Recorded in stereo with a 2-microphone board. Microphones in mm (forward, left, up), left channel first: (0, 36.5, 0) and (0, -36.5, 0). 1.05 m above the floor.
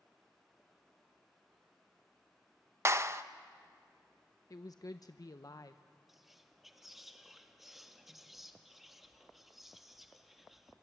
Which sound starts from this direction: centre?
Whispering, at 6.1 s.